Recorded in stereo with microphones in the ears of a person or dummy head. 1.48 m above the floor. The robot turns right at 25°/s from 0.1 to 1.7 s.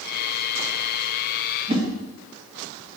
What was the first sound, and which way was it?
A whoosh, 30° right (ahead or behind).